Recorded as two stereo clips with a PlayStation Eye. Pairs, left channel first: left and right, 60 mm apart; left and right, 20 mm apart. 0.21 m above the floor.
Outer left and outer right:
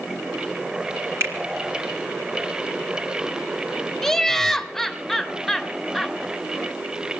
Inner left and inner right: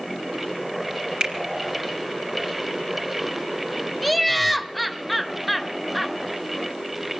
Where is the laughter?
5° left (ahead or behind), 1.0 m.